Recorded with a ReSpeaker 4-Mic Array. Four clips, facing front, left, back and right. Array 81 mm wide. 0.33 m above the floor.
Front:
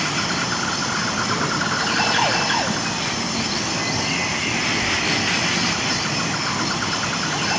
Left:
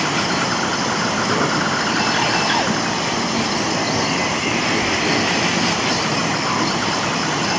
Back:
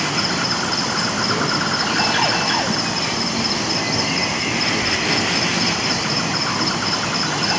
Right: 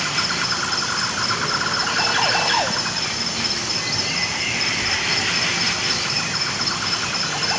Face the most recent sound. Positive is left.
turn(degrees=100)